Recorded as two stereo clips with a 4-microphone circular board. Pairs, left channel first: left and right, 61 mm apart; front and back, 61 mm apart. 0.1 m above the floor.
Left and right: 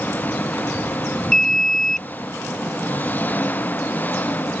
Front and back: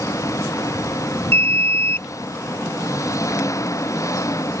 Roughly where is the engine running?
Ahead left.